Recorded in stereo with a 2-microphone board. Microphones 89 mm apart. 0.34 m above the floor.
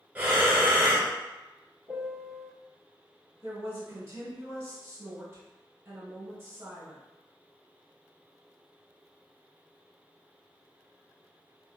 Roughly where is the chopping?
No chopping in this recording.